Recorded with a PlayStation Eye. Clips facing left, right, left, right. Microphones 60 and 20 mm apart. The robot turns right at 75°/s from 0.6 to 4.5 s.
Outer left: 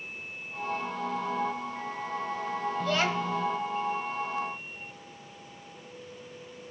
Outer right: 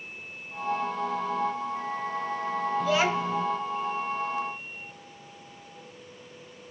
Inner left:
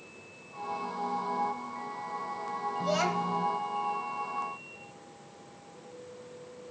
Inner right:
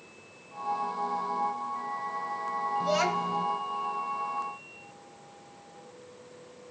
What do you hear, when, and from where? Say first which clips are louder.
2.8 s a child speaking: outer right 3 dB, inner right 1 dB; 175° right, 1.0 m; by 3.5 s 125° right, 1.0 m